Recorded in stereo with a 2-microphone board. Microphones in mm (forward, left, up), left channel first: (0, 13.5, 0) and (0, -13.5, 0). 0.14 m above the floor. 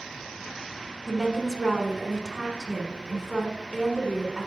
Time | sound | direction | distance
1.1 | a woman speaking | 20° right (ahead or behind) | 1.1 m